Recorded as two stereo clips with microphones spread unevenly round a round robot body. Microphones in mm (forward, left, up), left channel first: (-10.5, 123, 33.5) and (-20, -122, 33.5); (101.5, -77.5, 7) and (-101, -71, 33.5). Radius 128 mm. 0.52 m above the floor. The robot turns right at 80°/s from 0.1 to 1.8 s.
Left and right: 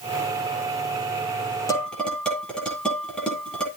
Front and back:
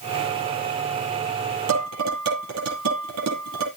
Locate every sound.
1.7 s dishes clattering: 165° left, 10 m; by 3.7 s 175° left, 10 m